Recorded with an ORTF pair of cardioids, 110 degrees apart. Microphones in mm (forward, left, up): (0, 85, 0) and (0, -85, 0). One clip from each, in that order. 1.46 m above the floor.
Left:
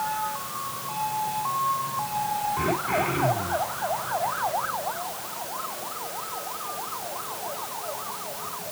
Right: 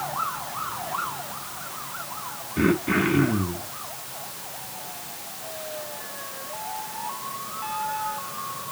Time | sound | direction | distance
2.6 | throat clearing | 60° right | 3 m